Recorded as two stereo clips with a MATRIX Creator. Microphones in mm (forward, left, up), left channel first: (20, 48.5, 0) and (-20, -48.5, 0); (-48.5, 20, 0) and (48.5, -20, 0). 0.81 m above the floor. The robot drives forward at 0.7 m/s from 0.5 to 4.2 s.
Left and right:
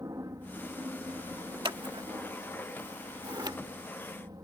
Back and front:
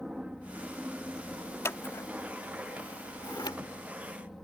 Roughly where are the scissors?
Behind right.